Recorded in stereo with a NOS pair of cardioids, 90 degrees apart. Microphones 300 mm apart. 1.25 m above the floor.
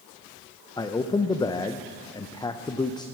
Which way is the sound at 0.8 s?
15° left.